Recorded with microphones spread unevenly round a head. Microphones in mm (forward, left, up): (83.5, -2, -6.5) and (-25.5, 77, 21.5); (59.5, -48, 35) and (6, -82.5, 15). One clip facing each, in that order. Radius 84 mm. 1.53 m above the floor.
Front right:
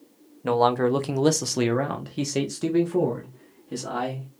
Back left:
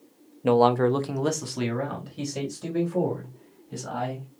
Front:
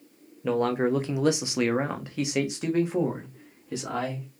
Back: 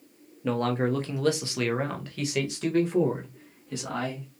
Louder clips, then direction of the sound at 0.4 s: Back left 1 dB, front 2 dB; 100° left.